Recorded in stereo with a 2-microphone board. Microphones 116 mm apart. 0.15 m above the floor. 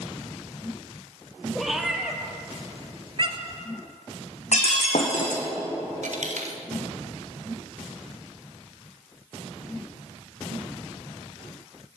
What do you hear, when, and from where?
1.6 s a cat meowing: centre (ahead or behind), 2.5 m; by 3.6 s 60° right (ahead or behind), 1.5 m
4.5 s breaking glass: 70° left (ahead or behind), 3.5 m
6.0 s a dropped coin: 85° right, 4 m